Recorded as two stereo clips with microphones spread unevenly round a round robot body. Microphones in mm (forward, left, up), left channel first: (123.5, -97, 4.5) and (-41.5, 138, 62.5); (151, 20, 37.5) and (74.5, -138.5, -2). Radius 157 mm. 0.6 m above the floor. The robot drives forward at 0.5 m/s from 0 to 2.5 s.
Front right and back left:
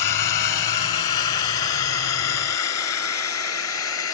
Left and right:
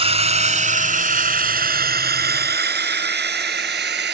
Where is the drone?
60° right; by 4.2 s 100° right.